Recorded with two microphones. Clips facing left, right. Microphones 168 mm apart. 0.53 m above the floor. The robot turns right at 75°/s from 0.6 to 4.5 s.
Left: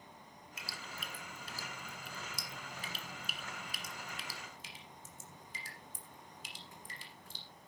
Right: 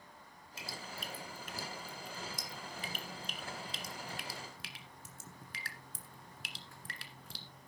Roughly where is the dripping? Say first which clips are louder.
Right 3 dB; right.